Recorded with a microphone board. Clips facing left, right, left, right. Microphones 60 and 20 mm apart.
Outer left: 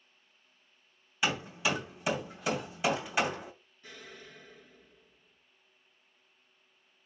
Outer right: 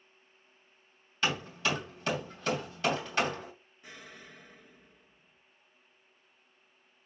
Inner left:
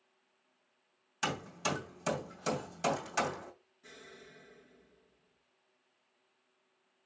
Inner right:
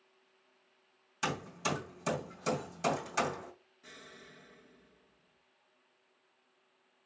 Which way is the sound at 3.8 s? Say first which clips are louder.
Even, even; 15° right (ahead or behind).